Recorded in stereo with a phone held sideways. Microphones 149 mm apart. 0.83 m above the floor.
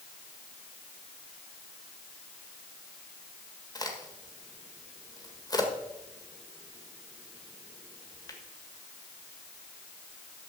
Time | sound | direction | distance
3.8 | a crack | 30° left (ahead or behind) | 1.7 m